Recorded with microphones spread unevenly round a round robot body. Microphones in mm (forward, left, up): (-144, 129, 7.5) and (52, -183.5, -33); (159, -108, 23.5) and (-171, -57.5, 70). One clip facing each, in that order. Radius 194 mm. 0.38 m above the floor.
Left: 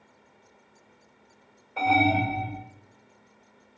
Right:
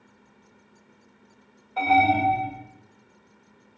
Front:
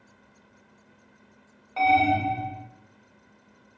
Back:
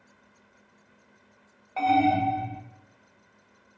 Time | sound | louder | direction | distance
1.8 | an alarm | right 1 dB, back 1 dB | 5° left | 1.3 m